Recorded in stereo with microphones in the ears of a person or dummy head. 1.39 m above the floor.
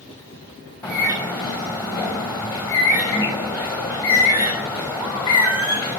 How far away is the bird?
About 5 m.